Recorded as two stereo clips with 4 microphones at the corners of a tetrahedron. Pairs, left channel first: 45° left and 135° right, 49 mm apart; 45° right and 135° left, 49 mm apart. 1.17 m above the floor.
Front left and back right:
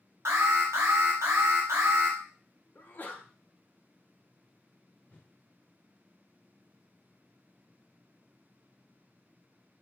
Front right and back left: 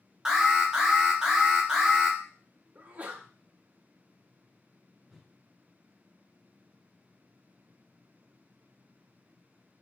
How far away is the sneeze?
About 0.6 m.